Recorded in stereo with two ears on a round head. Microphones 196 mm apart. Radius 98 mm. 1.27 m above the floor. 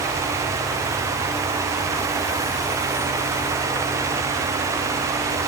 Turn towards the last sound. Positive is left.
No sound to turn to.